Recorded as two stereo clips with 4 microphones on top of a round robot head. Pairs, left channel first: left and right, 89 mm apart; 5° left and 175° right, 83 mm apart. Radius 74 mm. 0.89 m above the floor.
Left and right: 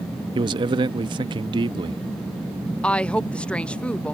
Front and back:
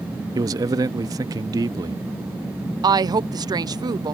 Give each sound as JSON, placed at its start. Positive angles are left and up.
{"t": 0.3, "sound": "a man speaking", "azimuth_deg": -125}
{"t": 2.8, "sound": "a woman speaking", "azimuth_deg": 165}